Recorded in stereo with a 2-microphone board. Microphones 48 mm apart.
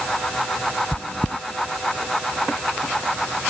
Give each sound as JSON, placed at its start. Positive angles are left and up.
{"t": 0.9, "sound": "chewing", "side_deg": 35}